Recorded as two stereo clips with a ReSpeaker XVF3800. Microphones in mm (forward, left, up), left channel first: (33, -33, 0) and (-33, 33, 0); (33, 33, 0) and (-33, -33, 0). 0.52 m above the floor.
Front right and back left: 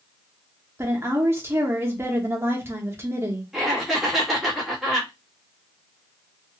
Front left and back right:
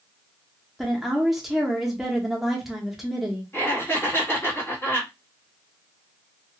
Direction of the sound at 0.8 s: 145° left.